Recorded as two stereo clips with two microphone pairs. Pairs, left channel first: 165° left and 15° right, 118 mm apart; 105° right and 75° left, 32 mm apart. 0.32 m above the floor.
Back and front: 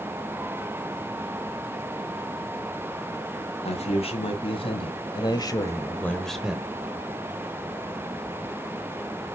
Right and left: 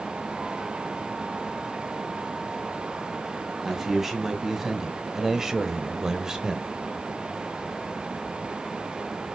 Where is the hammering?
No hammering in this recording.